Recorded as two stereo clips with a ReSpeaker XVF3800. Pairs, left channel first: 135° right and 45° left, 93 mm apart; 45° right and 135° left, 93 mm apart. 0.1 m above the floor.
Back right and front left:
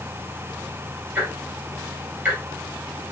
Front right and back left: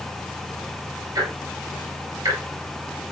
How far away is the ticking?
About 1.9 m.